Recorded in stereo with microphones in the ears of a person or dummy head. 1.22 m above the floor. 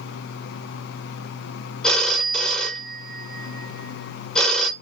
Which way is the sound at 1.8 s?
Centre (ahead or behind).